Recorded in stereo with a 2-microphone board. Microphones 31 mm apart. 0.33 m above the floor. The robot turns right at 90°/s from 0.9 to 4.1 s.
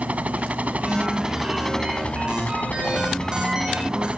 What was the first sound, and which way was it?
A helicopter, 65° right.